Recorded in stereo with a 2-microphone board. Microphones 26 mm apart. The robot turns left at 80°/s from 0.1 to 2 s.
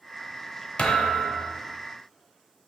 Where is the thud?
130° left, 0.6 m; by 1.7 s 55° left, 0.6 m.